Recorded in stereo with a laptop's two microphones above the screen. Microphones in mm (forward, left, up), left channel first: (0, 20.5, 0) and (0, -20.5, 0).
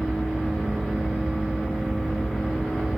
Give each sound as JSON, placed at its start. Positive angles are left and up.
{"t": 0.0, "sound": "a fan", "side_deg": 5, "distance_m": 1.3}